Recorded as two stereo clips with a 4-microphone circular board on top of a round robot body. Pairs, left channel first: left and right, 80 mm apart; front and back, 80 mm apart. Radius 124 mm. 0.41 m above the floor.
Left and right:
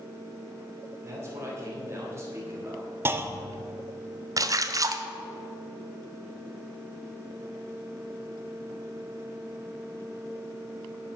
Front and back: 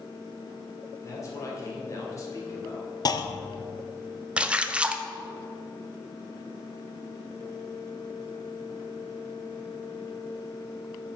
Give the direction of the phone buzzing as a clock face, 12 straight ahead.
I don't hear a phone buzzing.